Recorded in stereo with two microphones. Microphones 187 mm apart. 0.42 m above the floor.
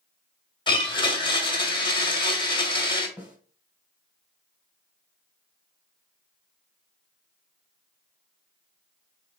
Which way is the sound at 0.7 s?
25° left (ahead or behind).